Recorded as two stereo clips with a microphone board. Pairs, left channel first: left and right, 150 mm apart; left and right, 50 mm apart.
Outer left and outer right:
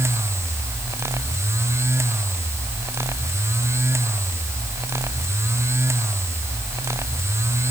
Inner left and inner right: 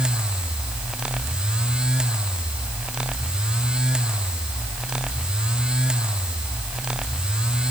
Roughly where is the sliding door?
I don't hear a sliding door.